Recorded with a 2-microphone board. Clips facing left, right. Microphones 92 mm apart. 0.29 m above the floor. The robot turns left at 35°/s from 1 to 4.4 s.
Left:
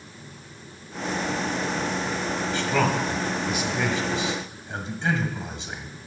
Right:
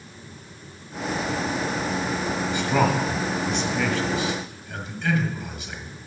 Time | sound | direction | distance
2.5 | a man speaking | 20° right (ahead or behind) | 1.2 m